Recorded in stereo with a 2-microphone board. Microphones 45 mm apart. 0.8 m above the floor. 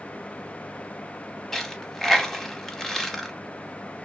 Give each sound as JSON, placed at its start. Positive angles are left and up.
{"t": 1.5, "sound": "a dropped coin", "side_deg": 5, "distance_m": 0.7}